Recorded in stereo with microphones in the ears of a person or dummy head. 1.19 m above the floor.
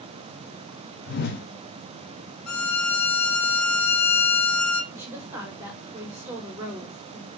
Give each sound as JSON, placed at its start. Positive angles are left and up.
{"t": 1.1, "sound": "a whoosh", "side_deg": 50, "distance_m": 1.2}
{"t": 2.5, "sound": "a violin", "side_deg": 80, "distance_m": 2.0}
{"t": 4.9, "sound": "a woman speaking", "side_deg": -15, "distance_m": 4.5}